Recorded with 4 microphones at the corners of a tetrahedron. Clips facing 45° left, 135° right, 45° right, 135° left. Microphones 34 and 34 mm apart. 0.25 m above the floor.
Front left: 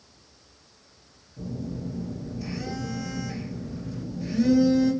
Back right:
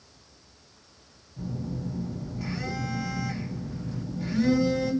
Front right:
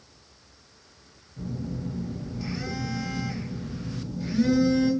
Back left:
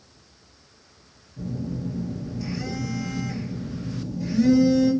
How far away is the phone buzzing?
About 1.7 m.